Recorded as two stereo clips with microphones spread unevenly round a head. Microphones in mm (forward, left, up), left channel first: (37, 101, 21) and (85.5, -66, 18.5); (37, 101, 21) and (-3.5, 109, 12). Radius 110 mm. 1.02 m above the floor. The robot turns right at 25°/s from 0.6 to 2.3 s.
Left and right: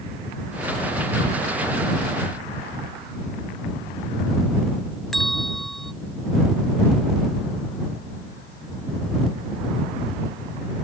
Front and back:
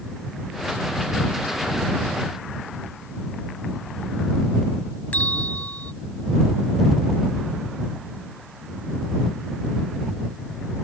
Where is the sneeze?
No sneeze in this recording.